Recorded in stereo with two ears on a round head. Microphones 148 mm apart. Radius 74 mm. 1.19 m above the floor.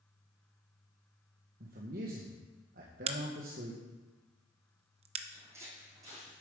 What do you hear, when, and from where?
1.6 s a man speaking: 55° right (ahead or behind), 1.2 m
3.1 s a crack: 40° right (ahead or behind), 0.7 m
5.3 s footsteps: 15° right (ahead or behind), 2.5 m; by 6.3 s 20° right (ahead or behind), 3.5 m